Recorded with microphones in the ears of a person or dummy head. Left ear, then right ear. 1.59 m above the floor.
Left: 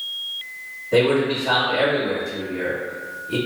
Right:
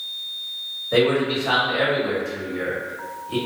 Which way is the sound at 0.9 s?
35° right (ahead or behind).